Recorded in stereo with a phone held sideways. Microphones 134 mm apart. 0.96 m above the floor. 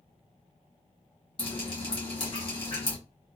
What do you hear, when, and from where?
1.4 s dripping: 40° left (ahead or behind), 1.6 m